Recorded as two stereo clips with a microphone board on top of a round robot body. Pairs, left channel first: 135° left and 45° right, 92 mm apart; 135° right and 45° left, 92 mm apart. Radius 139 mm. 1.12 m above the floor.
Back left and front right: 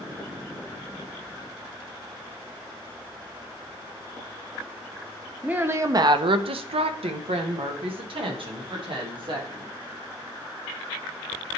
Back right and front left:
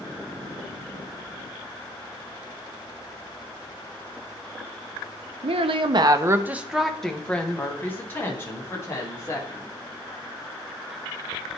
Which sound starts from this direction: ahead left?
A woman speaking, at 5.4 s.